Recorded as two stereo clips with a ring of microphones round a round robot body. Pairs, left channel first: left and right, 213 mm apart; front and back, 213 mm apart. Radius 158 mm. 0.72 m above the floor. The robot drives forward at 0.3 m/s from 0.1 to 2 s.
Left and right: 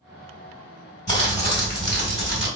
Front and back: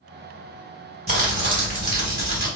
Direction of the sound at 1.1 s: 145° left.